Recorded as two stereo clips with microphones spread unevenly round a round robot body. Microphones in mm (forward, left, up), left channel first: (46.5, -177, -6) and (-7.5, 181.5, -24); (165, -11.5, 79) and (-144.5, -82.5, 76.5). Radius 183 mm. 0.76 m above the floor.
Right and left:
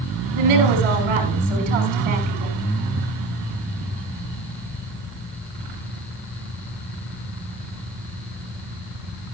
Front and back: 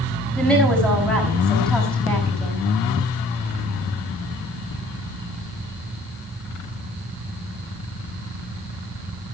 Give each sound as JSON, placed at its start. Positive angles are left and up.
{"t": 0.3, "sound": "a woman speaking", "azimuth_deg": 100, "distance_m": 5.5}